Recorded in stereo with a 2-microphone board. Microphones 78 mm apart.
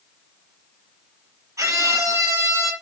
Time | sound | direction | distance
1.6 | a scream | 40° right (ahead or behind) | 6.5 m